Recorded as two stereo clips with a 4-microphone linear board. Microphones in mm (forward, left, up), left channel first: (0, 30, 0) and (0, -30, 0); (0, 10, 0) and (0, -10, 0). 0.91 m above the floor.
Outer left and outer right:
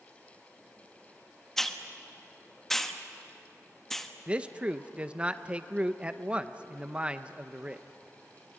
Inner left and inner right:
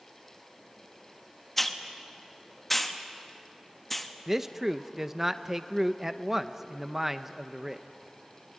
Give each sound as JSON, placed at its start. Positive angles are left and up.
{"t": 1.6, "sound": "a hiss", "side_deg": 5, "distance_m": 1.2}
{"t": 4.3, "sound": "a man speaking", "side_deg": -20, "distance_m": 0.7}